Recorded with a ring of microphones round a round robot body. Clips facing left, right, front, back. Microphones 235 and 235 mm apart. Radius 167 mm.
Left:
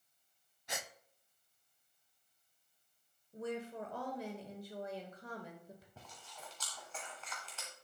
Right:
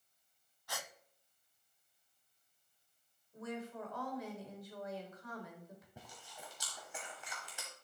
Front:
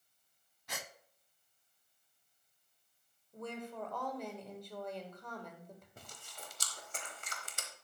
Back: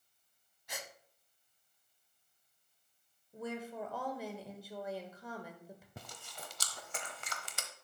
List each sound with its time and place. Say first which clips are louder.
0.7 s a gasp: left 2 dB, even; 20° left, 0.6 m
3.3 s a woman speaking: left 3 dB, back 2 dB; 105° left, 1.4 m
6.0 s chewing: right 1 dB, back 3 dB; 170° right, 0.9 m